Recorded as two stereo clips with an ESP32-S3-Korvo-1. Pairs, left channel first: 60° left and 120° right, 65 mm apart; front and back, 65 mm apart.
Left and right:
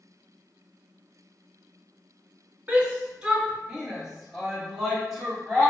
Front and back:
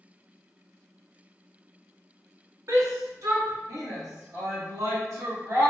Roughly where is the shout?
Behind.